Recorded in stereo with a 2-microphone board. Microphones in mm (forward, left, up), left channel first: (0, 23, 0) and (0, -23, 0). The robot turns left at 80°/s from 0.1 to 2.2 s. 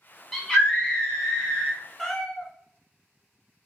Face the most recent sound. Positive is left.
turn(degrees=15)  # may be behind; listen again after turning